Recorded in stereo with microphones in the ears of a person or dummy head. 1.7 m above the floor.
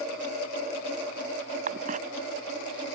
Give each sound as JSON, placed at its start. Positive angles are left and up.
{"t": 1.7, "sound": "a cough", "side_deg": -45}